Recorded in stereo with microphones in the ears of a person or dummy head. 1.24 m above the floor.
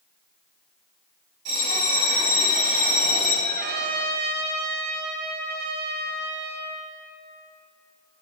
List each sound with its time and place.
1.4 s a bell: 55° right (ahead or behind), 3.5 m
3.5 s a trumpet: 45° right (ahead or behind), 1.0 m